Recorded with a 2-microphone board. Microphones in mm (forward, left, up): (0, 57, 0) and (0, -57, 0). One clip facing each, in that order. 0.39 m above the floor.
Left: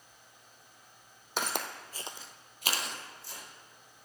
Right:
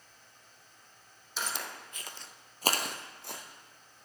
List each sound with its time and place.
1.4 s footsteps: 65° left (ahead or behind), 1.1 m; by 3.4 s 70° right (ahead or behind), 1.4 m